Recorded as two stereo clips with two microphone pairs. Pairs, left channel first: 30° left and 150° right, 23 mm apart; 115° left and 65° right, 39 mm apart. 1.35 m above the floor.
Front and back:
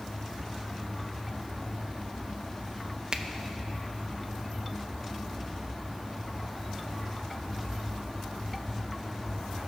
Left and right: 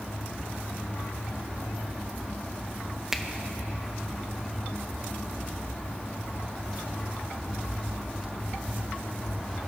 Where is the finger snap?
145° right, 0.5 m.